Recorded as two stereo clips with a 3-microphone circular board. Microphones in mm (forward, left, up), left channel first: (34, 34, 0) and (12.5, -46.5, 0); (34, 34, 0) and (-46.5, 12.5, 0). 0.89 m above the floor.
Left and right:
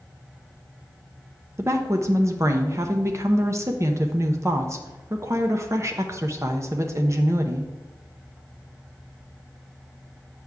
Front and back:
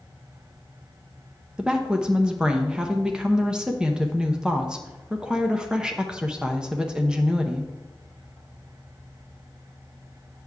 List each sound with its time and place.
1.6 s a woman speaking: 90° right, 0.7 m